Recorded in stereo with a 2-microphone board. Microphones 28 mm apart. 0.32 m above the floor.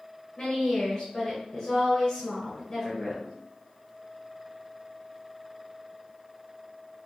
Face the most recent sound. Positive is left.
turn(degrees=25)  # may be behind; listen again after turning